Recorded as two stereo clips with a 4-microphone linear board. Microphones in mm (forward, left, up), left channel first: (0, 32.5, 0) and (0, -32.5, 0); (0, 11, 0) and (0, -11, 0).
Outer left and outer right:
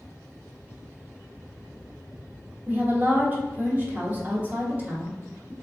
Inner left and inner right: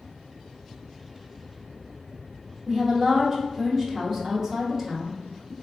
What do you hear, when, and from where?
2.7 s a woman speaking: 30° right (ahead or behind), 1.1 m